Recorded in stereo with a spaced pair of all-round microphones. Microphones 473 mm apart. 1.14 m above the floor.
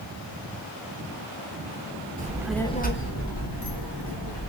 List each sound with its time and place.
2.2 s a child speaking: 20° right (ahead or behind), 0.7 m; by 4.5 s 65° left (ahead or behind), 1.5 m